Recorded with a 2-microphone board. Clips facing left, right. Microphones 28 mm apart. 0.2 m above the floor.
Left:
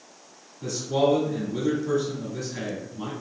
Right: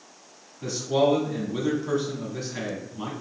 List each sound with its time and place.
0.6 s a man speaking: 25° right (ahead or behind), 1.4 m